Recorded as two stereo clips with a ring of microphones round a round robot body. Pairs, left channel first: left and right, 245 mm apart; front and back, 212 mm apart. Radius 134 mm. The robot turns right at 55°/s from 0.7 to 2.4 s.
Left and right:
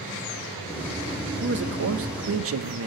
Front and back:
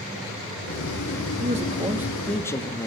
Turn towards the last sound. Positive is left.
turn(degrees=-75)